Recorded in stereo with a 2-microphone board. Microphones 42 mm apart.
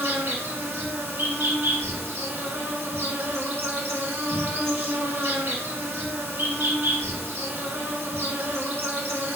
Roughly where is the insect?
Right.